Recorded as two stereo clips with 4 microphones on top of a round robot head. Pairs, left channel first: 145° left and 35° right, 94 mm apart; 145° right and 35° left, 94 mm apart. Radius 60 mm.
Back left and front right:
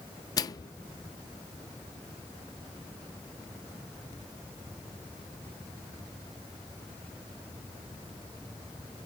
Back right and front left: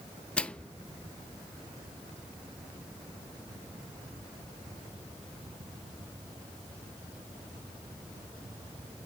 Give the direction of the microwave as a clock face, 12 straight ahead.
7 o'clock.